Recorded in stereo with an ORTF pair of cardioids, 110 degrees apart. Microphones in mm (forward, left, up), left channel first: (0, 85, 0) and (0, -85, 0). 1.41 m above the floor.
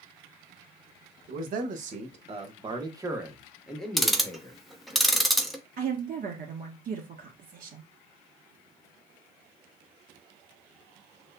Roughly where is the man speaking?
Ahead right.